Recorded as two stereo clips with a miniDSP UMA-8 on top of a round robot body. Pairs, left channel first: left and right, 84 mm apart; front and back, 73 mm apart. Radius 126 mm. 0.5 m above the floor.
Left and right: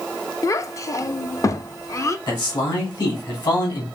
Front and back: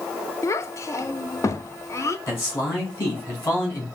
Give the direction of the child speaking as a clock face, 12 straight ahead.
11 o'clock.